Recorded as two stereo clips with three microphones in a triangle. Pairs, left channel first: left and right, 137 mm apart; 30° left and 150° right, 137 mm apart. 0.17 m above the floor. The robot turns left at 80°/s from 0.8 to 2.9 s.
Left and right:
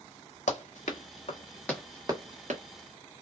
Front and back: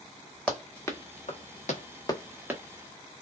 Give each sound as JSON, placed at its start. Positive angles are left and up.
{"t": 0.5, "sound": "running footsteps", "azimuth_deg": 115, "distance_m": 1.4}